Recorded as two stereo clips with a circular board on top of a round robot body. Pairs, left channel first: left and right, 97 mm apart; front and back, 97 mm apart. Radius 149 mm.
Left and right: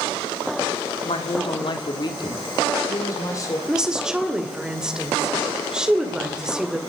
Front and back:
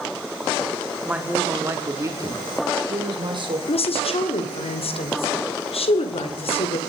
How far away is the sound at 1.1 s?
About 2 m.